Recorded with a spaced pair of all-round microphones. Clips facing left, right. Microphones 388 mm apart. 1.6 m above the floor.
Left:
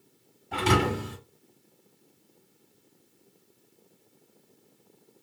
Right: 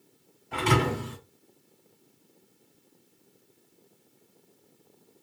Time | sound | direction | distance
0.5 | a thud | 50° left (ahead or behind) | 2 m